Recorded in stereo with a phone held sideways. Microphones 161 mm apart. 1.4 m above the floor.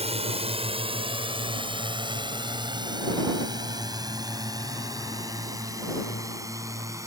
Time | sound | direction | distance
0.0 | a drone | 40° right (ahead or behind) | ?